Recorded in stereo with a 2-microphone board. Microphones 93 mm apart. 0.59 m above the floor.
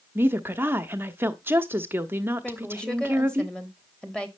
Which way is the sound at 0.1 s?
25° right (ahead or behind).